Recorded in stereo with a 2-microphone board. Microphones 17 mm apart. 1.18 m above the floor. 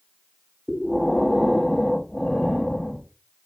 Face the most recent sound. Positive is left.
turn(degrees=15)  # may be behind; listen again after turning